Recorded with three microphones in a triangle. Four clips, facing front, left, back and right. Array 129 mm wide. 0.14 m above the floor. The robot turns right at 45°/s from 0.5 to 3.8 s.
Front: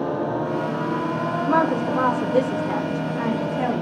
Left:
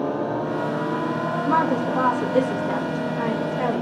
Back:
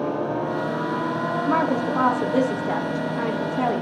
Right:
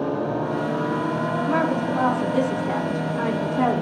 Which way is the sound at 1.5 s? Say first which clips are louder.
Left 3 dB, front 2 dB; 140° left.